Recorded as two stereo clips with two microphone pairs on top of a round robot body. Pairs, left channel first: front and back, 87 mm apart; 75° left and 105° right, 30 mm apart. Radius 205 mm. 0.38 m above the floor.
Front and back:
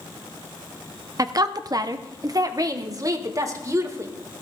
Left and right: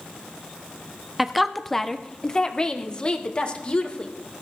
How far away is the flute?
No flute in this recording.